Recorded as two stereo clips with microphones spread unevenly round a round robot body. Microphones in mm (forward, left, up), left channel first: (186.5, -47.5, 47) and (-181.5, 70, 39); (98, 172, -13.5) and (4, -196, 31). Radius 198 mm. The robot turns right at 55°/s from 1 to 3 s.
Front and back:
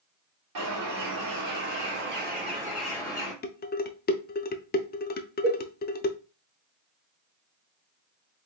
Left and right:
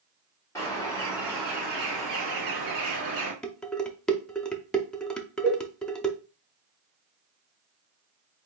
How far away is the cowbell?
About 1.5 m.